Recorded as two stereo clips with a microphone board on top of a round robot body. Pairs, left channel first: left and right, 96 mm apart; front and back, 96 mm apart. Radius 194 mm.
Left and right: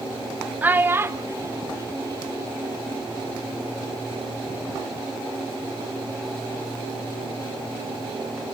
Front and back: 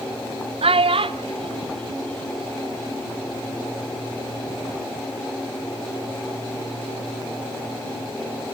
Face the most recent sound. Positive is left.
turn(degrees=-145)